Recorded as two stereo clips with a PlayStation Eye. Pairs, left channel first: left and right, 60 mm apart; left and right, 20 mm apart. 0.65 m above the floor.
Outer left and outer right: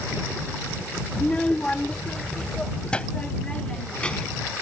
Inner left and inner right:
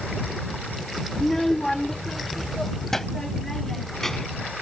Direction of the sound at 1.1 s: 20° left (ahead or behind).